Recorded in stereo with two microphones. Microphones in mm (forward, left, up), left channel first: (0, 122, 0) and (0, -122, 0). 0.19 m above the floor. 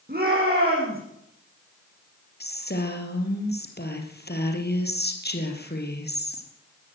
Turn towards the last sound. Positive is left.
turn(degrees=40)  # may be behind; listen again after turning